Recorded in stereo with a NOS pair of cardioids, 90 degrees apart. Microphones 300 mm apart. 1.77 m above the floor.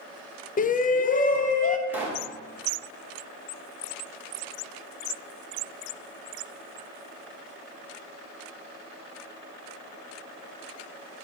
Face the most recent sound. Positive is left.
turn(degrees=-5)